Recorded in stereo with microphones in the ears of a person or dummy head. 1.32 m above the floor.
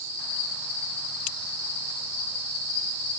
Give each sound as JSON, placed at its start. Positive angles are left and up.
{"t": 0.0, "sound": "an insect", "side_deg": 65, "distance_m": 3.0}